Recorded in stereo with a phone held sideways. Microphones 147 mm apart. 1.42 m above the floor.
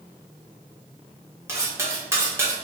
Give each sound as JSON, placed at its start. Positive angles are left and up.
{"t": 1.5, "sound": "cutlery clinking", "side_deg": -15, "distance_m": 1.0}